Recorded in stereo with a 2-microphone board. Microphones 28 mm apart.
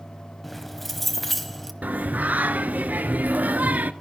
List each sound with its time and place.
0.4 s keys jangling: 5° left (ahead or behind), 1.0 m
1.8 s singing: 85° right, 0.8 m